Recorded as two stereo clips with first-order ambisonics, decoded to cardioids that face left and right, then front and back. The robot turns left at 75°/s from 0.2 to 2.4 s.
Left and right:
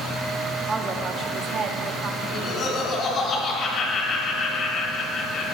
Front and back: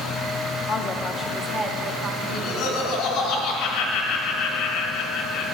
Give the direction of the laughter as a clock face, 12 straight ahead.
11 o'clock.